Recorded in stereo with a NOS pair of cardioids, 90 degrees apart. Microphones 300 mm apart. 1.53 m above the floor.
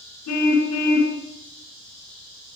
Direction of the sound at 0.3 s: 65° left.